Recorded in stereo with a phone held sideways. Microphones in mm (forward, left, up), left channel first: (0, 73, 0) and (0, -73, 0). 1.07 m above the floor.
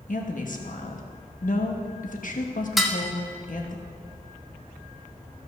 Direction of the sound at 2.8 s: Centre (ahead or behind).